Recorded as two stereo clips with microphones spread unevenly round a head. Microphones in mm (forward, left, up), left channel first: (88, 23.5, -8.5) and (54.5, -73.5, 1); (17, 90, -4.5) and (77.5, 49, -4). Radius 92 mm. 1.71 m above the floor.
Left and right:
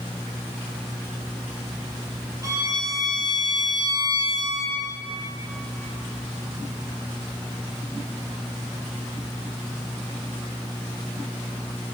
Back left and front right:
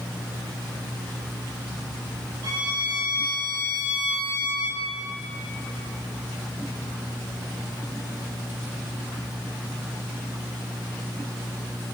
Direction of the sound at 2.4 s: 65° right.